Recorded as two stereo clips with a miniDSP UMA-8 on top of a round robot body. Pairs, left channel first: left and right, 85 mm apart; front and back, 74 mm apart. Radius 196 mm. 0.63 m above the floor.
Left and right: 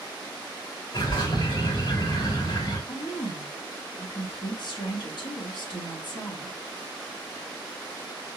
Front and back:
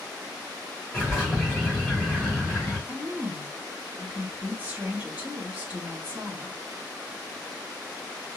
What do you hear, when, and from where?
0.9 s a bird: 80° left, 3 m
2.9 s a woman speaking: 110° left, 2 m